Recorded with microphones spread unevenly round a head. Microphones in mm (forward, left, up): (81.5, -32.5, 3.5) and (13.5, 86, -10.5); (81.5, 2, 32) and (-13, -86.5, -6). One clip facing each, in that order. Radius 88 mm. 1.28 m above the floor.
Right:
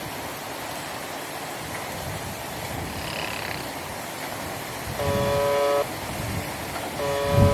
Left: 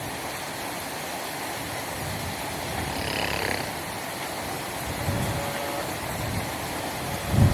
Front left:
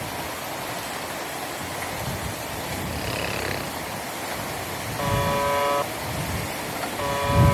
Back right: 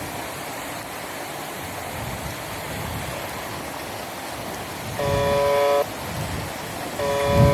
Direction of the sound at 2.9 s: 85° left.